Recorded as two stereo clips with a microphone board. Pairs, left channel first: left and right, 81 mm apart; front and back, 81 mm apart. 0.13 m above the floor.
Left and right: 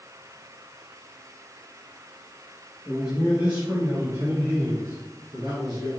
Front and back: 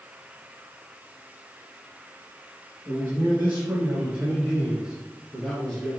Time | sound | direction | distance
2.9 | a man speaking | 165° right | 1.9 m